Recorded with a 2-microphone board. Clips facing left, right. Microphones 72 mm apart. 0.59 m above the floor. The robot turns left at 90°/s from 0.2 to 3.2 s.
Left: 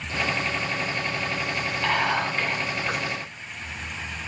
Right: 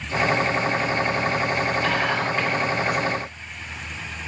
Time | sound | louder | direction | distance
1.8 | whispering | right 1 dB | 75° left | 3 m